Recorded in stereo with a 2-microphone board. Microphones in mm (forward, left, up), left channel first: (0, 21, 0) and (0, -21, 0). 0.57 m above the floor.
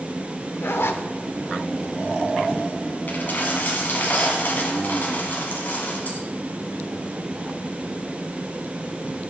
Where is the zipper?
70° left (ahead or behind), 0.7 m.